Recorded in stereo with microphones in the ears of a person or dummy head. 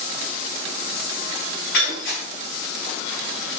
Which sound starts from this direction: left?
Breaking glass, at 1.7 s.